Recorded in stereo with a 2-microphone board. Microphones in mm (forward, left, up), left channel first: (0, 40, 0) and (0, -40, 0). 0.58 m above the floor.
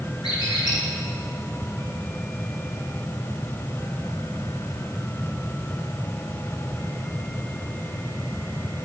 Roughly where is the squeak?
Left.